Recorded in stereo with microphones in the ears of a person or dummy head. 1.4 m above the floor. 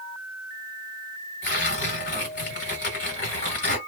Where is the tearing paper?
55° left (ahead or behind), 1.7 m.